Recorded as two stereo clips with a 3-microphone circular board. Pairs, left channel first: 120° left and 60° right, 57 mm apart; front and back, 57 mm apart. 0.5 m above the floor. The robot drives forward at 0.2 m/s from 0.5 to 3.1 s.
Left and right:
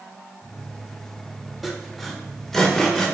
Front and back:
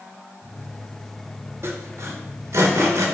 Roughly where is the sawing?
Behind right.